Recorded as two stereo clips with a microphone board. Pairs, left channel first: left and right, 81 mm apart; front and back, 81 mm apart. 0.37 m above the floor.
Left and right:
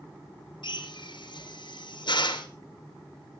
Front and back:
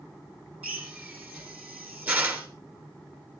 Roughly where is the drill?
Left.